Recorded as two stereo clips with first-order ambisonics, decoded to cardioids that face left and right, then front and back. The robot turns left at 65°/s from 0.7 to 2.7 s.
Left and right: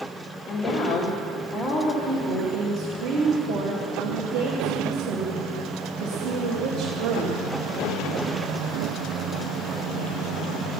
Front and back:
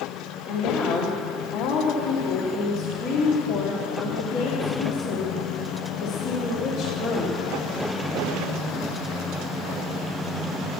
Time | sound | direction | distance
0.5 | a woman speaking | 60° left | 1.9 m